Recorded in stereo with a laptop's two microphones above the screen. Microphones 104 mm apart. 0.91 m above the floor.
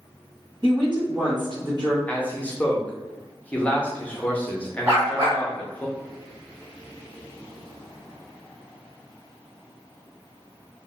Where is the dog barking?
35° right (ahead or behind), 1.2 m.